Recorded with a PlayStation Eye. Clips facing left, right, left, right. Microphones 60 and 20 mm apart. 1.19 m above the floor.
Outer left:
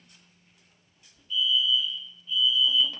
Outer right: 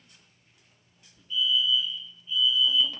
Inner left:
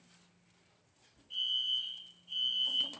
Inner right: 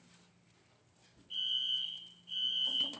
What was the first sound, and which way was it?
A fire alarm, 15° right (ahead or behind).